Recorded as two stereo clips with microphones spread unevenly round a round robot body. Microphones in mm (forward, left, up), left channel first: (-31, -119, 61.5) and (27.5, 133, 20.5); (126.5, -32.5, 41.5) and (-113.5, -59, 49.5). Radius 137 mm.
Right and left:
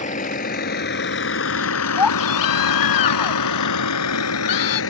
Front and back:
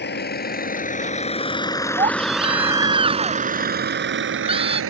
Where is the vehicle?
40° right; by 4.9 s 145° right.